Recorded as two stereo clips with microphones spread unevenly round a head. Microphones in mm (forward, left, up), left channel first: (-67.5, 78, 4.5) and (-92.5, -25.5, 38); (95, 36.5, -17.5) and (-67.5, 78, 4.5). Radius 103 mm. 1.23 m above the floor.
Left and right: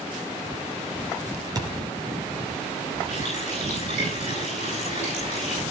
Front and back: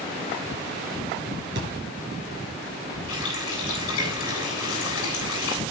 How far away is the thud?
About 6.5 m.